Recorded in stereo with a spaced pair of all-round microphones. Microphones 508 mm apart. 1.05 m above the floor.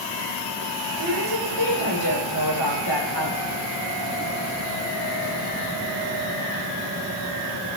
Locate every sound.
1.0 s a woman speaking: 75° right (ahead or behind), 4 m